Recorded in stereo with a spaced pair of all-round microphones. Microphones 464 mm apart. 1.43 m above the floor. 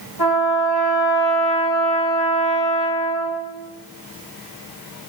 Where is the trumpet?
60° left (ahead or behind), 3 m.